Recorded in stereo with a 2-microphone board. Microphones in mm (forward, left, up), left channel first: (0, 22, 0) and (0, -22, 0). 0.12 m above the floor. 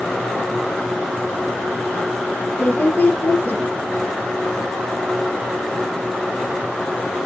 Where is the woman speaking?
30° left (ahead or behind), 3 m.